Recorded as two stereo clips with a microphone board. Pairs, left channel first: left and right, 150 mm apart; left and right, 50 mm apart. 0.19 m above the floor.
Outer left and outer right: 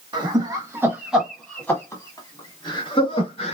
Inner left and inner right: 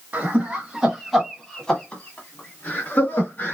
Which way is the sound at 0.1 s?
30° right (ahead or behind).